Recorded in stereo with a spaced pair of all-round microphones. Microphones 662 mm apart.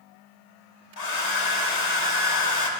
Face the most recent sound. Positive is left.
turn(degrees=75)  # may be behind; listen again after turning